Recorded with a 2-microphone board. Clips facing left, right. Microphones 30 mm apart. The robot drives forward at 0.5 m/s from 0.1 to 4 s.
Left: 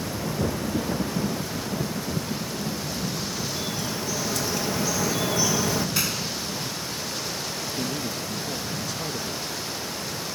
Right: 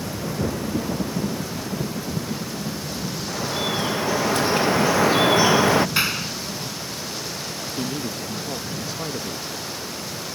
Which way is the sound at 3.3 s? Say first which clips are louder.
Right 5 dB; 50° right (ahead or behind).